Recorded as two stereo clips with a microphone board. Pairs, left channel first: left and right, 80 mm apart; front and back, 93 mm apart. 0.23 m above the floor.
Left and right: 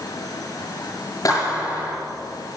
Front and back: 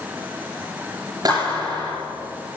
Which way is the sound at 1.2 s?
135° left.